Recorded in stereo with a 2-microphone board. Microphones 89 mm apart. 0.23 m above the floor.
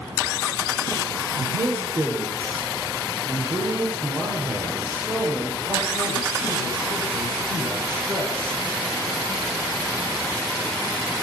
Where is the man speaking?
25° right (ahead or behind), 7 m.